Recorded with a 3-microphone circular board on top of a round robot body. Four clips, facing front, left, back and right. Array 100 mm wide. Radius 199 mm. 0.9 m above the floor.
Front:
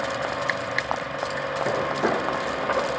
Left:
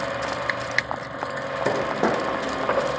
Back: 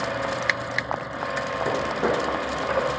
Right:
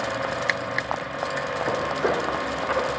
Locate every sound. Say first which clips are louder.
1.6 s footsteps: left 3 dB, even; 100° left, 5.5 m; by 2.9 s 90° left, 4.5 m